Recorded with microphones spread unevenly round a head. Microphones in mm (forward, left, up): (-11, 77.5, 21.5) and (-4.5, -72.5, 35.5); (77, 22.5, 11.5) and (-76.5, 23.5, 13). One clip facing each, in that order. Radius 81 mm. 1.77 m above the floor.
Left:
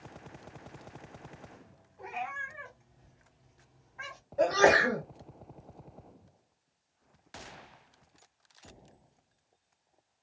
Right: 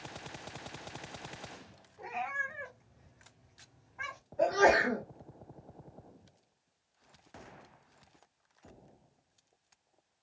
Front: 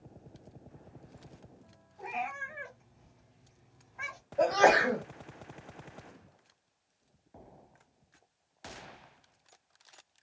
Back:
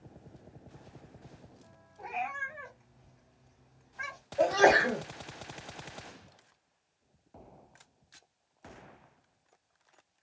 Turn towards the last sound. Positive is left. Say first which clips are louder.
# left 2 dB, even
turn(degrees=95)